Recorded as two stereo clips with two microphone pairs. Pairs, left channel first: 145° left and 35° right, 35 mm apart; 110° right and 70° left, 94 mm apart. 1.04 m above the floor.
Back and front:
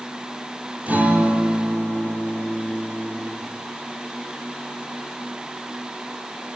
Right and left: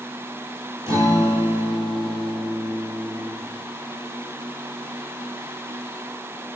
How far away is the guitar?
About 9.5 m.